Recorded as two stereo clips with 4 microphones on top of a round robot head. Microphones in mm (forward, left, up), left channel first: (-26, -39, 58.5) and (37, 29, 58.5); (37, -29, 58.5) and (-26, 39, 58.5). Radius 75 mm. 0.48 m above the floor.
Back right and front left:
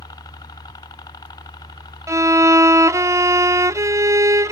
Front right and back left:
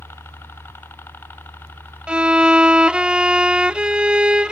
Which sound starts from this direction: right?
A helicopter, at 0.0 s.